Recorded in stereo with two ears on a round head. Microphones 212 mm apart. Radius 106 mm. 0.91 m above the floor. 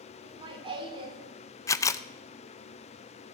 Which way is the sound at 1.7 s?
15° left (ahead or behind).